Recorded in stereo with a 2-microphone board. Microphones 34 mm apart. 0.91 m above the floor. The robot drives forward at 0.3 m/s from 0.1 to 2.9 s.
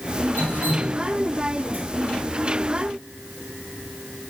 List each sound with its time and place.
0.4 s dripping: 75° right (ahead or behind), 2.5 m; by 1.8 s 80° right, 2.5 m